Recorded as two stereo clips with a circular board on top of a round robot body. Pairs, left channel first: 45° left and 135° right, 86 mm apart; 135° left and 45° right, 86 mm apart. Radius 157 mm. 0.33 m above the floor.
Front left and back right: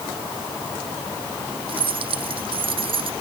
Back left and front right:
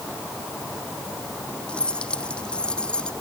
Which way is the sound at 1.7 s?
145° right.